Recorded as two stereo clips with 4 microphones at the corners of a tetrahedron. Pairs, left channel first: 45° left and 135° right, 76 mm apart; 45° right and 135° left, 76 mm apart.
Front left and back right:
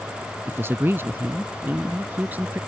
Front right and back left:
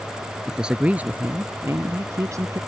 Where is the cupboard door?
I don't hear a cupboard door.